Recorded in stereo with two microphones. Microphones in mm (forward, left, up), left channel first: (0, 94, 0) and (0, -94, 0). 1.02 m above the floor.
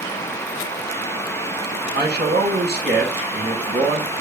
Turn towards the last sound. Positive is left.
turn(degrees=-65)  # may be behind; listen again after turning